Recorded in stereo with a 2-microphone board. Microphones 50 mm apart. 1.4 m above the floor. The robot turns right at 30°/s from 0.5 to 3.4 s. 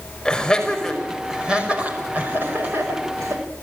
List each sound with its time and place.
0.2 s laughter: 15° left (ahead or behind), 5.5 m; by 3.4 s 70° right (ahead or behind), 5.5 m